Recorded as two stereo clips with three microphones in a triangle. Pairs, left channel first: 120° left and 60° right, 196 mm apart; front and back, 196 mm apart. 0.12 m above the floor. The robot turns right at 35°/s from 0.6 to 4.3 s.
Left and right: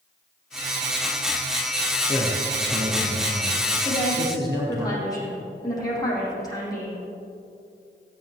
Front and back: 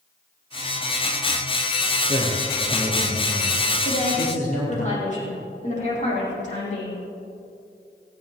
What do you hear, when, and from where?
2.1 s a man speaking: 125° right, 3.5 m; by 4.8 s 45° right, 3.5 m
3.9 s a woman speaking: 35° left, 6 m; by 7.0 s 50° left, 6 m